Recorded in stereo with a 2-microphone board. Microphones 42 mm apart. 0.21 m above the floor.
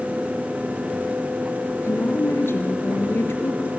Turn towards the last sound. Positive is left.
turn(degrees=70)  # may be behind; listen again after turning